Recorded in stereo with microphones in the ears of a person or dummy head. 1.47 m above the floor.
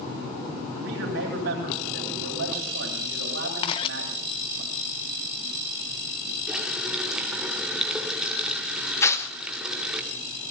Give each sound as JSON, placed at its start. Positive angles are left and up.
{"t": 0.7, "sound": "a man speaking", "side_deg": -85, "distance_m": 8.5}
{"t": 3.6, "sound": "a camera shutter", "side_deg": 35, "distance_m": 1.1}
{"t": 6.5, "sound": "a running tap", "side_deg": -5, "distance_m": 2.5}
{"t": 9.0, "sound": "tearing paper", "side_deg": 15, "distance_m": 1.3}